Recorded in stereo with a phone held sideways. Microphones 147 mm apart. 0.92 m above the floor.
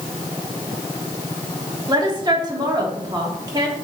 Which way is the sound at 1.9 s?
30° right (ahead or behind).